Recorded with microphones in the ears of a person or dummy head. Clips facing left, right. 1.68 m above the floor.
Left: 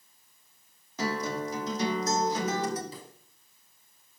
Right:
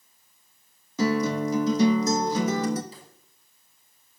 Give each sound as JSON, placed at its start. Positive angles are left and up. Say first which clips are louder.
{"t": 1.0, "sound": "a guitar", "louder": "right 8 dB", "side_deg": -85, "distance_m": 3.5}
{"t": 2.9, "sound": "a pop", "louder": "left 4 dB", "side_deg": 75, "distance_m": 5.0}